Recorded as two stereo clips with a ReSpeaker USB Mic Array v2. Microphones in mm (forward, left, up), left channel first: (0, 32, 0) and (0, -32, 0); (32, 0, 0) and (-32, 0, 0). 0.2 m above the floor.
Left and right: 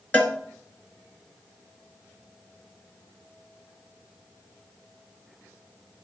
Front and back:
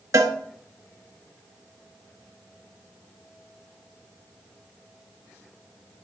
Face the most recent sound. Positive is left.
turn(degrees=150)